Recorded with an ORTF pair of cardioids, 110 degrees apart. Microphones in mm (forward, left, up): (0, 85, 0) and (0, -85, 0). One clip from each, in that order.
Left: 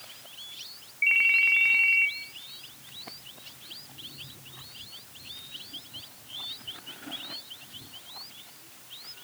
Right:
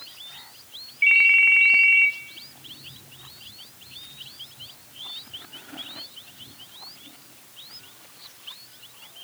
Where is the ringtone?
15° right, 0.7 m.